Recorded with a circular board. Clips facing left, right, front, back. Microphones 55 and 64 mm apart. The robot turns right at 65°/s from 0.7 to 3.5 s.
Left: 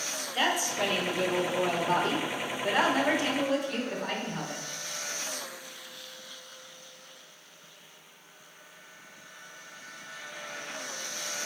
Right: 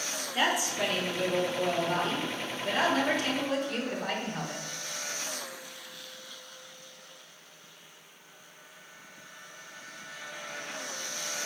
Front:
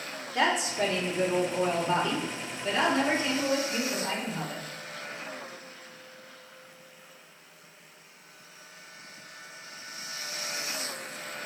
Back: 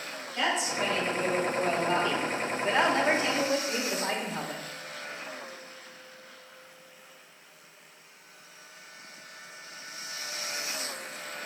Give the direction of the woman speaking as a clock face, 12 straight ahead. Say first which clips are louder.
Even, front 3 dB; 12 o'clock.